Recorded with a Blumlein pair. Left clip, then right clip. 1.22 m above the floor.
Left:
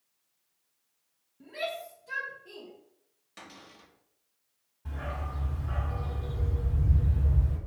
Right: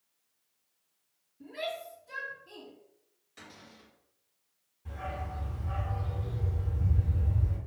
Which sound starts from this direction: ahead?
A shout, at 1.4 s.